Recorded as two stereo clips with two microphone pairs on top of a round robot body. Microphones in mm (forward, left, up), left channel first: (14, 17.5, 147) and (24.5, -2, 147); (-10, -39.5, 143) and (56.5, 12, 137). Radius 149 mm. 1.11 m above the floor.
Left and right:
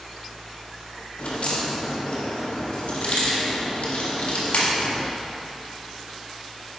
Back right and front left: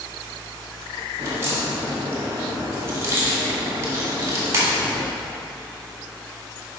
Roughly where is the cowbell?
No cowbell in this recording.